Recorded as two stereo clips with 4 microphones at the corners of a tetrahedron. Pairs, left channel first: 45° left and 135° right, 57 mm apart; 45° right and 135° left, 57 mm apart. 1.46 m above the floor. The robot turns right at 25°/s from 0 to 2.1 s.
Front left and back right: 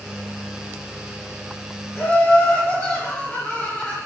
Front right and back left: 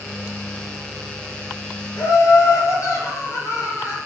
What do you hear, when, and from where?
2.0 s laughter: 25° right, 2.5 m; by 4.0 s 20° right, 2.5 m